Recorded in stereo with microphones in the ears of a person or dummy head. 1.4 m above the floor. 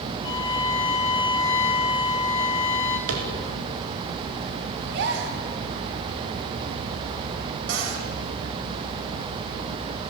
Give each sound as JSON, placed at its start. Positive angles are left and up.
{"t": 0.2, "sound": "a violin", "side_deg": 20, "distance_m": 3.0}
{"t": 3.1, "sound": "tapping", "side_deg": -80, "distance_m": 4.5}
{"t": 4.9, "sound": "a gasp", "side_deg": -65, "distance_m": 4.0}
{"t": 7.7, "sound": "a cupboard door", "side_deg": -75, "distance_m": 4.5}